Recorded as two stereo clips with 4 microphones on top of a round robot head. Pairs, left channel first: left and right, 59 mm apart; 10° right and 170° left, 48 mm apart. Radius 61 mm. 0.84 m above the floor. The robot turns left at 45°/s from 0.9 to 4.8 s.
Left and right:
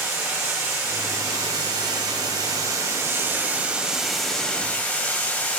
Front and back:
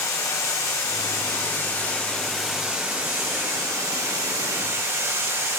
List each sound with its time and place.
0.0 s running water: 35° right, 1.7 m; by 5.6 s 150° left, 1.7 m